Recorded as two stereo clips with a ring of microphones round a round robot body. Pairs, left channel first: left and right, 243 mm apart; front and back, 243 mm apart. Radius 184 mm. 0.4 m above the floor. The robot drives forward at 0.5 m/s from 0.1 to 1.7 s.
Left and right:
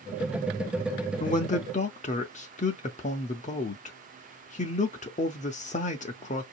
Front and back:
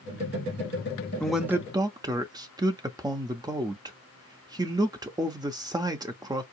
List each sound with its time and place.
1.2 s a man speaking: 85° left, 0.8 m; by 6.4 s 115° left, 0.8 m